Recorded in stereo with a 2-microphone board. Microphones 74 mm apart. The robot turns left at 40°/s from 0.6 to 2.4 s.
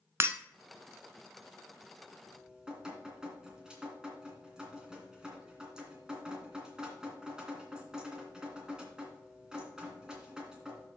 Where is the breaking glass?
40° right (ahead or behind), 0.7 m.